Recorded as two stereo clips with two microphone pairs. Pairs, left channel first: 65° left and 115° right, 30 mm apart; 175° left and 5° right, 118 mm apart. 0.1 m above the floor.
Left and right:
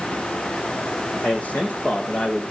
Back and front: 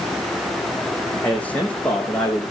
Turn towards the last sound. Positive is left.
turn(degrees=100)